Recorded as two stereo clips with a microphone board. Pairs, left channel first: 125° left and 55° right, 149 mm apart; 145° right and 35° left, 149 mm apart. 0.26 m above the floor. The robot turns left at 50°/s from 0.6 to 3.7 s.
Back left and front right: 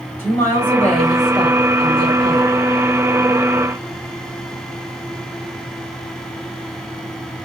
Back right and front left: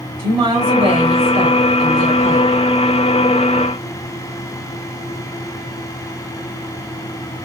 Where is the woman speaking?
60° left, 1.5 m; by 2.6 s 40° right, 1.5 m.